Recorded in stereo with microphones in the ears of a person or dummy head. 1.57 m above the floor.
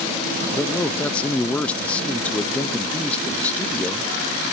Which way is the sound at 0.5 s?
10° left (ahead or behind).